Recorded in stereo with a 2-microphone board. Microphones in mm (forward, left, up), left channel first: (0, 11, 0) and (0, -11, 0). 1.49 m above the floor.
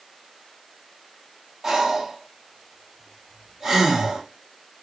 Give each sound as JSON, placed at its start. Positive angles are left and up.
{"t": 1.6, "sound": "breathing", "side_deg": -25, "distance_m": 1.0}